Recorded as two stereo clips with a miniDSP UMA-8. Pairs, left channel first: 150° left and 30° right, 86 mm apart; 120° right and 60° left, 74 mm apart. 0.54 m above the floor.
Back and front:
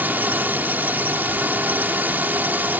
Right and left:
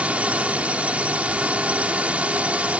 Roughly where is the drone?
Ahead.